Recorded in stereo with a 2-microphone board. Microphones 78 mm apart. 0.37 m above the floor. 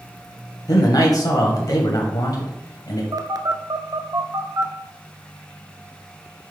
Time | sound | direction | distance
0.7 | a man speaking | 55° left (ahead or behind) | 2.5 m
3.1 | a phone buzzing | 60° right (ahead or behind) | 0.8 m